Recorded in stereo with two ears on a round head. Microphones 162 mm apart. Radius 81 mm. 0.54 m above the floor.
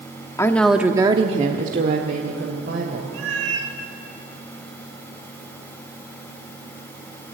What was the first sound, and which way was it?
A woman speaking, 15° left (ahead or behind).